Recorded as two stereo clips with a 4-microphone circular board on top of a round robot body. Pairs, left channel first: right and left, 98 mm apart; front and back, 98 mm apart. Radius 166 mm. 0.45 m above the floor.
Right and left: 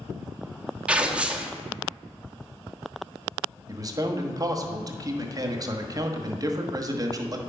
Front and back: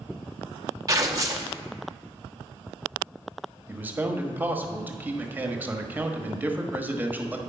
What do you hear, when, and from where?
0.9 s tearing paper: 160° left, 1.3 m
3.7 s a man speaking: 115° left, 1.4 m